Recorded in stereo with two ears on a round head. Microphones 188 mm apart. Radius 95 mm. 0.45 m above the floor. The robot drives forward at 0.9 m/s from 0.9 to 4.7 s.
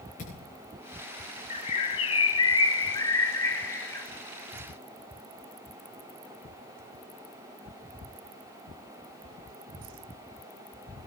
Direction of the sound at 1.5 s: 30° left (ahead or behind).